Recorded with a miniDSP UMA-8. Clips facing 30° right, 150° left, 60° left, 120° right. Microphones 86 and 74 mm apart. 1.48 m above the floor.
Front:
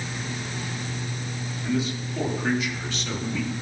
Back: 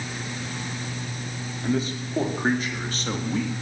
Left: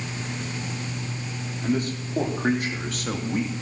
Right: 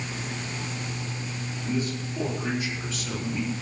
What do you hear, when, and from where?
1.6 s a man speaking: 100° left, 4.5 m